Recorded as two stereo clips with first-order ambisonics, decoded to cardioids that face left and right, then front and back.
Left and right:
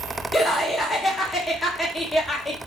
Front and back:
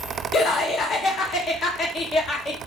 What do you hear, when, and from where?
0.3 s laughter: 15° left, 0.6 m